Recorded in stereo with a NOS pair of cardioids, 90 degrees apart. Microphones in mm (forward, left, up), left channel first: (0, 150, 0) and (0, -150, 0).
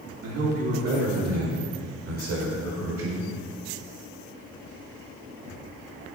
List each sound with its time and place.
0.2 s a man speaking: 55° right, 2.5 m